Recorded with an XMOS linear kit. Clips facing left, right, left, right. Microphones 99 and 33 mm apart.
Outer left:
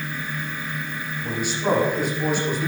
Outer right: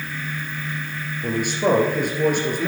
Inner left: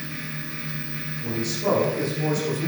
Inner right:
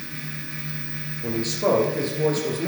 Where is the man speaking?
55° right (ahead or behind), 2.5 m.